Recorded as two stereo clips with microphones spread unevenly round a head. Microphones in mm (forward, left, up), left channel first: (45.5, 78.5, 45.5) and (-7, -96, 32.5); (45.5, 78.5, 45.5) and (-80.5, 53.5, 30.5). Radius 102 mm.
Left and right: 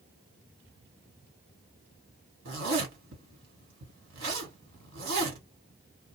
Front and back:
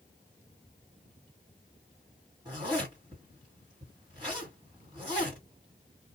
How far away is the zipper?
About 1.9 m.